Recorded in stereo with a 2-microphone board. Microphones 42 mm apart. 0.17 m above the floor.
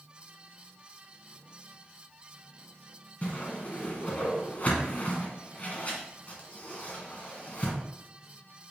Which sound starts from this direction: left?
A whoosh, at 3.2 s.